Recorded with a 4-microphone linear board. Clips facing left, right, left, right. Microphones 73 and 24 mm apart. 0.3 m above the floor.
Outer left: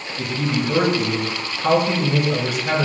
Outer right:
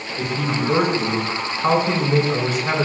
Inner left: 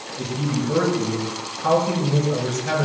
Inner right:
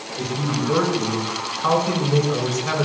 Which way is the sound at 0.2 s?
45° right (ahead or behind).